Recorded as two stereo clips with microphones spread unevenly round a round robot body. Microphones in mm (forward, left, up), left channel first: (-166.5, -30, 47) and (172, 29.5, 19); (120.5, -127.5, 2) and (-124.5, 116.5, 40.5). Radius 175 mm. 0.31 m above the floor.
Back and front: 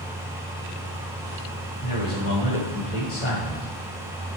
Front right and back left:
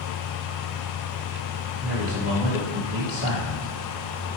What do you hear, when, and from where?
1.8 s a man speaking: 175° right, 1.9 m